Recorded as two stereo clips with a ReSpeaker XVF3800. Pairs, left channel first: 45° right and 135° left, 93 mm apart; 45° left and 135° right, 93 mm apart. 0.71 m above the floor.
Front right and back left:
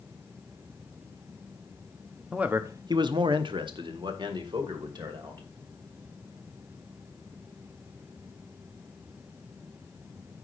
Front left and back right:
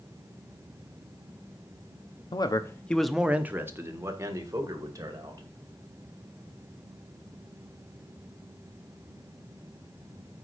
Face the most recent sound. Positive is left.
turn(degrees=175)